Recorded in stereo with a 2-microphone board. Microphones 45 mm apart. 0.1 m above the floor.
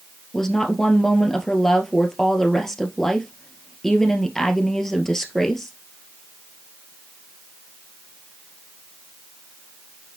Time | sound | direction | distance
0.3 | a woman speaking | 10° left (ahead or behind) | 1.9 m